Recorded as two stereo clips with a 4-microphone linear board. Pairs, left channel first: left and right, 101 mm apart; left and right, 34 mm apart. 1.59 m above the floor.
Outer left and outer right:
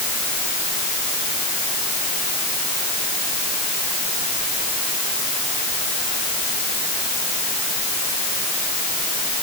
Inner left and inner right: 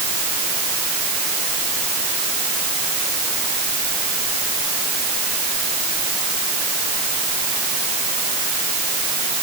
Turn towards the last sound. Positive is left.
No sound to turn to.